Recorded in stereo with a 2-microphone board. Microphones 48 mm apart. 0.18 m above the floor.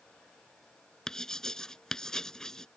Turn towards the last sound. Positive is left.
turn(degrees=15)  # may be behind; listen again after turning